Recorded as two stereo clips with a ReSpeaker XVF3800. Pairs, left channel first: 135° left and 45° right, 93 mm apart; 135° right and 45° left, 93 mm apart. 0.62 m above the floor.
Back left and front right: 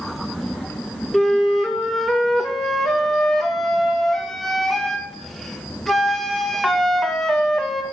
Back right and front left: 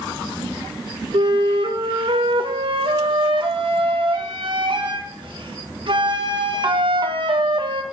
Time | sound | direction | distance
1.1 | a flute | 50° left | 0.8 m